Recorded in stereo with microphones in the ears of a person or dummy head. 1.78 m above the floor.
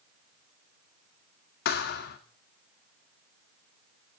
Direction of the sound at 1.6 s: 55° left (ahead or behind).